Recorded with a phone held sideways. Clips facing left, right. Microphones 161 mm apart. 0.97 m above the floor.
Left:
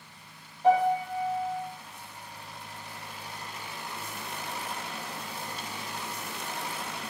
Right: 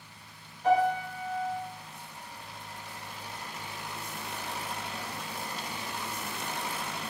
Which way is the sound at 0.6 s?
30° left (ahead or behind).